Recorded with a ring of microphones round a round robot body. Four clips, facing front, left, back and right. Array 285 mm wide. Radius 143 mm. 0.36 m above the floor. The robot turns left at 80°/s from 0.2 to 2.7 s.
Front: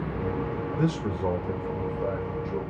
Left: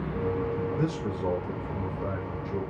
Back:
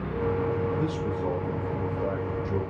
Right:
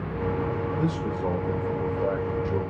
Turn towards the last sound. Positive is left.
turn(degrees=-140)